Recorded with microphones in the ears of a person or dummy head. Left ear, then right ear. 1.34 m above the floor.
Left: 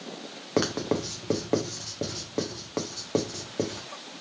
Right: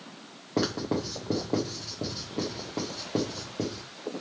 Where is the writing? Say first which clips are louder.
Left 2 dB; 35° left (ahead or behind), 0.7 m.